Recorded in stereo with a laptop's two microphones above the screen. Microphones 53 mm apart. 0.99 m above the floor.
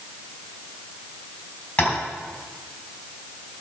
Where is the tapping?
25° left (ahead or behind), 3 m.